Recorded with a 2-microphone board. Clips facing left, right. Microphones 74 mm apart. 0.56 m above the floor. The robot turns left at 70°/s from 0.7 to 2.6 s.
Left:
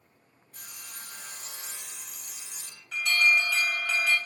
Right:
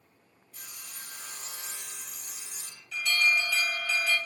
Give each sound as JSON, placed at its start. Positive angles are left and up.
{"t": 0.5, "sound": "sawing", "azimuth_deg": 105, "distance_m": 1.2}
{"t": 2.9, "sound": "an alarm", "side_deg": 55, "distance_m": 1.4}